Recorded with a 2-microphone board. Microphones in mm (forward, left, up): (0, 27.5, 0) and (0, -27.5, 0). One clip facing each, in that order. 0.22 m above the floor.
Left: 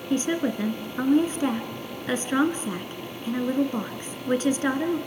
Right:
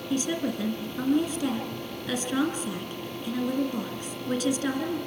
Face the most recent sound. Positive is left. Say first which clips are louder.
# left 4 dB
turn(degrees=35)  # may be behind; listen again after turning